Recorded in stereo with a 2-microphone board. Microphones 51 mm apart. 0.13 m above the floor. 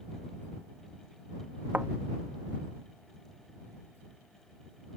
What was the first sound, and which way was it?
A thud, 35° right (ahead or behind).